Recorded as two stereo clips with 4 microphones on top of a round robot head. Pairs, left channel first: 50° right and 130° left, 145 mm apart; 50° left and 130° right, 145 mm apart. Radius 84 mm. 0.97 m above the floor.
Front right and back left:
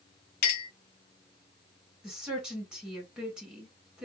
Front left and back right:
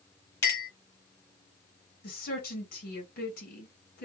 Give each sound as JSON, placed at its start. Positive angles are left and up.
{"t": 0.4, "sound": "a clink", "azimuth_deg": -25, "distance_m": 1.4}
{"t": 2.0, "sound": "a woman speaking", "azimuth_deg": 50, "distance_m": 2.0}